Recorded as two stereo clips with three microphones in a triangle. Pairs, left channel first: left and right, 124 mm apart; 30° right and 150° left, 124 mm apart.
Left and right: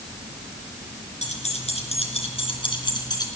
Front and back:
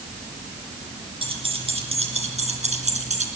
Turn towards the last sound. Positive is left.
turn(degrees=145)